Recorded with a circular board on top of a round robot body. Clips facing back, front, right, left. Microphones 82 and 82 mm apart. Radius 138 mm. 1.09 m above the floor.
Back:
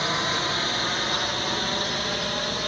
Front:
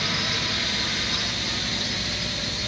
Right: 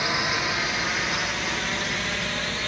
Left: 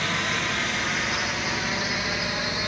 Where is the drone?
160° right; by 2.7 s 165° left.